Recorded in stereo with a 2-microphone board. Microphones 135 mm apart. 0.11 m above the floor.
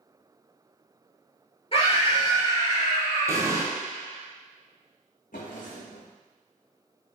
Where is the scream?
40° left (ahead or behind), 2 m; by 3.6 s 25° left (ahead or behind), 2.5 m.